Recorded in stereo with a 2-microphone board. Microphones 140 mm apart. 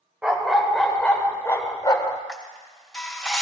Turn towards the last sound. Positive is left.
turn(degrees=5)  # may be behind; listen again after turning